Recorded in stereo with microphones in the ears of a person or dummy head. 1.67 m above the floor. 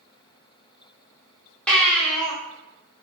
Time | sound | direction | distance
1.7 | a baby crying | 10° left (ahead or behind) | 0.9 m